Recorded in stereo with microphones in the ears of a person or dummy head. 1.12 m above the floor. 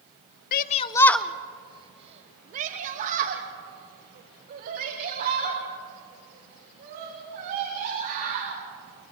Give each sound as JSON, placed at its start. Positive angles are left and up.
{"t": 0.5, "sound": "a shout", "side_deg": 45, "distance_m": 0.5}